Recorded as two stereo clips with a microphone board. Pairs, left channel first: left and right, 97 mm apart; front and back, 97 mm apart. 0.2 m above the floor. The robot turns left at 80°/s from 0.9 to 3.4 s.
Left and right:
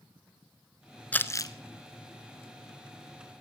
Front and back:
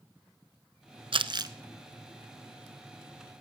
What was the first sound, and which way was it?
Crumpling, 165° left.